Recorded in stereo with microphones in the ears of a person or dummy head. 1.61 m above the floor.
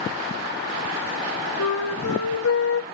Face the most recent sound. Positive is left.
turn(degrees=75)  # may be behind; listen again after turning